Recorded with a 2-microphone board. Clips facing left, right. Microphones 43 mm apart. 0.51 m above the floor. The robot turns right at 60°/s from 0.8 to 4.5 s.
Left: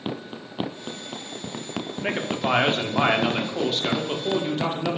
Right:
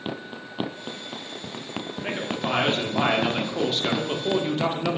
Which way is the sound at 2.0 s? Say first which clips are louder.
Left 3 dB; 60° left.